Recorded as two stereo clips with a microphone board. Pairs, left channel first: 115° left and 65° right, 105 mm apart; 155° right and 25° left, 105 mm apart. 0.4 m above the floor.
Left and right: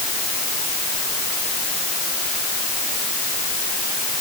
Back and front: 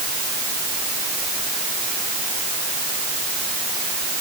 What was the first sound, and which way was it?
Only background noise.